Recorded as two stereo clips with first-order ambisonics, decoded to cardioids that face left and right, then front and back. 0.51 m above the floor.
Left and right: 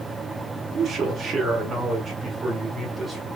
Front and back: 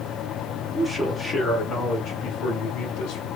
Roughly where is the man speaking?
Right.